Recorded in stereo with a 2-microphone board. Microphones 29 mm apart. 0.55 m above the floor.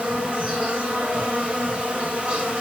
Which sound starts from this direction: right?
An insect, at 0.0 s.